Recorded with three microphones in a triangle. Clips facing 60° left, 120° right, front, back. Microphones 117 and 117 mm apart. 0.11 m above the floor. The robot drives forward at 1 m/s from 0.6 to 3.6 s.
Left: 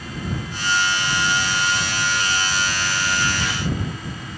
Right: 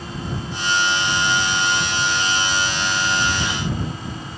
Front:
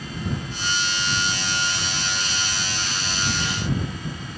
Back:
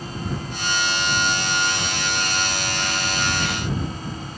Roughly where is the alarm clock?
I don't hear an alarm clock.